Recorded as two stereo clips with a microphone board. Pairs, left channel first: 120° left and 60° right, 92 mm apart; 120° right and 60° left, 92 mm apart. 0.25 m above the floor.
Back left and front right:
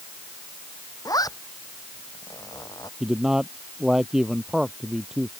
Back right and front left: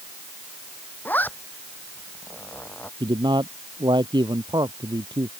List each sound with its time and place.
1.1 s a zipper: 170° left
3.0 s a man speaking: 25° left